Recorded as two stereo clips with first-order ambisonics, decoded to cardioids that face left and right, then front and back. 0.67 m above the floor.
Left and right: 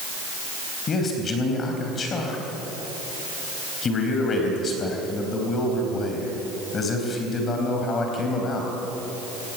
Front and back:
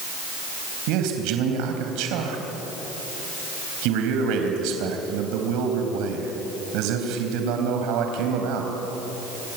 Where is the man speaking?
155° left, 3.5 m.